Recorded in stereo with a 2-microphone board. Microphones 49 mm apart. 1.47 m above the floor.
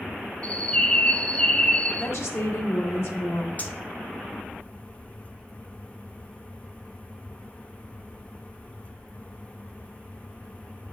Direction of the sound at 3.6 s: 35° left (ahead or behind).